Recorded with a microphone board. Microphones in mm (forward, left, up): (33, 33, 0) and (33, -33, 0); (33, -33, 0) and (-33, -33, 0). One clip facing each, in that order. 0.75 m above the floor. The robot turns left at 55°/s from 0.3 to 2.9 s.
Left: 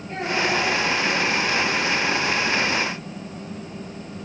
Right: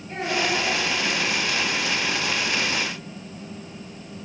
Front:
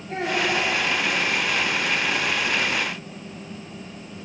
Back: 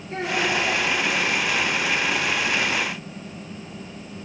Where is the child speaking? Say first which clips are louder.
Left 2 dB, even; 5° left, 4.5 m; by 0.6 s 15° right, 4.5 m.